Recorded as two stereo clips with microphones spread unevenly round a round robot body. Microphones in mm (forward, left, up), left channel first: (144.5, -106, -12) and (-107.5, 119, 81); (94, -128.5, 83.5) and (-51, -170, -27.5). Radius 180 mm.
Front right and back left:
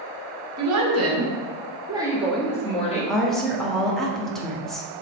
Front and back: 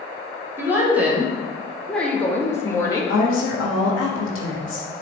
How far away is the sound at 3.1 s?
About 1.4 m.